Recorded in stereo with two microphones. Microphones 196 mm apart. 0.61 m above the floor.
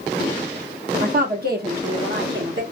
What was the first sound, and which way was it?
A woman speaking, 45° right (ahead or behind).